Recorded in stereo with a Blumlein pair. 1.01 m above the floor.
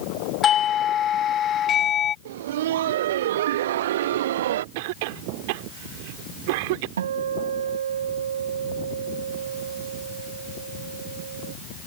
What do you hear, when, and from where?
0.4 s a doorbell: 25° left
2.2 s laughter: 55° right
4.8 s a cough: 50° right
7.0 s a guitar: 65° right